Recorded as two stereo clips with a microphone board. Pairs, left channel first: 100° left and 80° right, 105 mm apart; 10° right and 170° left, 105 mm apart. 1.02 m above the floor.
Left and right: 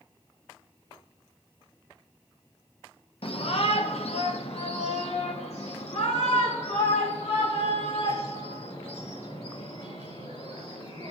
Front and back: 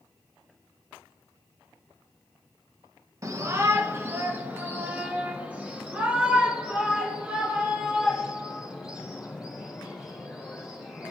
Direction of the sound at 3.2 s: 115° left.